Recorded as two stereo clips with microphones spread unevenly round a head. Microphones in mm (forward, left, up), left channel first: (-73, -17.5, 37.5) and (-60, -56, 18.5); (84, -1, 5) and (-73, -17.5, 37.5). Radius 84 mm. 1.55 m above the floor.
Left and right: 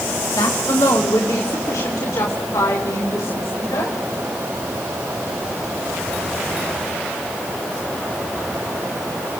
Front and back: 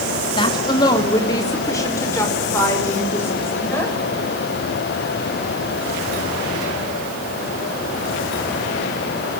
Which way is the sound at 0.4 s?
70° left.